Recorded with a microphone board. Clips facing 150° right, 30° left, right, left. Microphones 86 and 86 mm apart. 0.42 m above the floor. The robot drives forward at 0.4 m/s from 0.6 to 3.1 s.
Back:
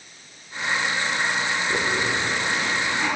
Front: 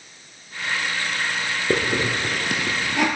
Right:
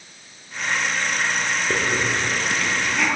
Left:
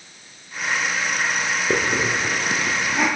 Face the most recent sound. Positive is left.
turn(degrees=20)